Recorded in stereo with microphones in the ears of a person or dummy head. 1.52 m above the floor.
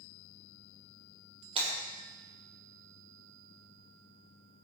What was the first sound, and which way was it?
Breaking glass, 30° right (ahead or behind).